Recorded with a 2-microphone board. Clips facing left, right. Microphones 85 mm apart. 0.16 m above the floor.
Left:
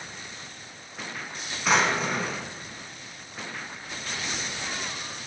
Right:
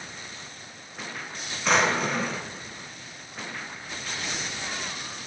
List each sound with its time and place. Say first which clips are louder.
1.6 s a drawer: right 1 dB; 5° left (ahead or behind), 0.7 m